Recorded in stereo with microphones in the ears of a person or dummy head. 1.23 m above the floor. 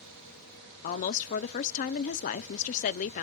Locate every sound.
0.8 s a woman speaking: 45° left (ahead or behind), 0.5 m